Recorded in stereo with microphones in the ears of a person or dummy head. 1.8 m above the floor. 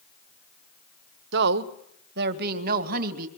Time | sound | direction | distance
1.3 | a woman speaking | 60° right (ahead or behind) | 1.1 m